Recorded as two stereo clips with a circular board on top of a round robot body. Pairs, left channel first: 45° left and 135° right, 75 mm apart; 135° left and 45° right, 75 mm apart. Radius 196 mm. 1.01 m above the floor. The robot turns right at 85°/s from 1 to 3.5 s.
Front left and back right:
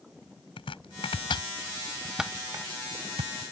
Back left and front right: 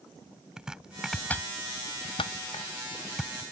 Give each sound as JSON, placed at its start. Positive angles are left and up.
{"t": 0.6, "sound": "chopping", "azimuth_deg": 40}